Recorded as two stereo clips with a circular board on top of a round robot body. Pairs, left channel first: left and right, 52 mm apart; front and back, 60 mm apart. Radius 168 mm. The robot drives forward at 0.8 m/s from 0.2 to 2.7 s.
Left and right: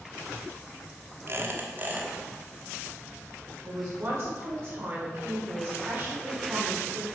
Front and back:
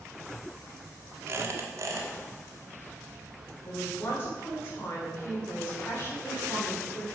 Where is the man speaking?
55° right, 3.5 m.